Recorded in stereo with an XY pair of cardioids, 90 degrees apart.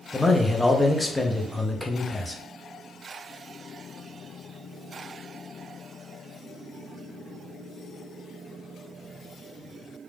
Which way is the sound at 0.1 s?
10° left.